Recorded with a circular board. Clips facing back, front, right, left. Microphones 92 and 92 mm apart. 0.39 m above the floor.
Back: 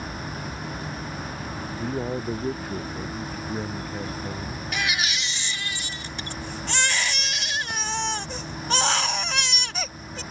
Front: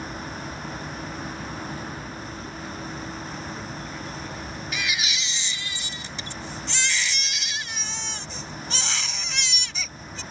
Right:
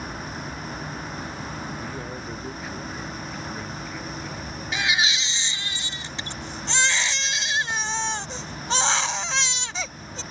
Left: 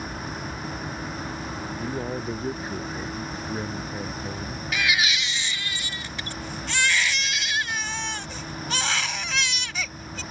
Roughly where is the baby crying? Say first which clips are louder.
Back 3 dB, even; behind right.